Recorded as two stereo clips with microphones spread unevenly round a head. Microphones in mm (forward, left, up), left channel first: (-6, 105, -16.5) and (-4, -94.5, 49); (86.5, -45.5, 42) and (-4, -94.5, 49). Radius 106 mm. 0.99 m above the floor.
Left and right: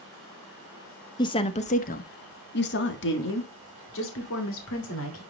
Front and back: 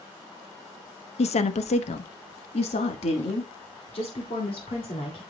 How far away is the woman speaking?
About 0.9 m.